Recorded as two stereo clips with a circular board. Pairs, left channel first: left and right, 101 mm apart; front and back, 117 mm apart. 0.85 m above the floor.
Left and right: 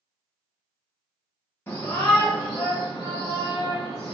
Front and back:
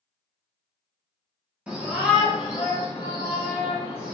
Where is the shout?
115° left, 1.0 m; by 4.2 s 100° left, 2.0 m.